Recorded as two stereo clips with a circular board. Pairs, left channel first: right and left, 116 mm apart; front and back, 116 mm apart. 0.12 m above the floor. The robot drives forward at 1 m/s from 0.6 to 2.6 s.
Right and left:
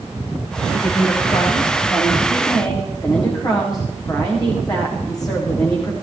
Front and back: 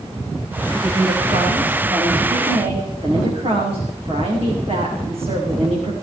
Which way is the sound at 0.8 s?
135° right.